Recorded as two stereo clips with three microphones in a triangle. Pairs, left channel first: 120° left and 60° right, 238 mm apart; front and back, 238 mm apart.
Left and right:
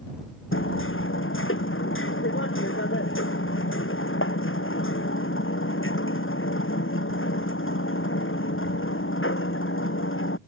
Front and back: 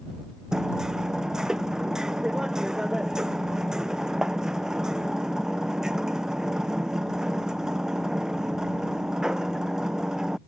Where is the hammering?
95° left.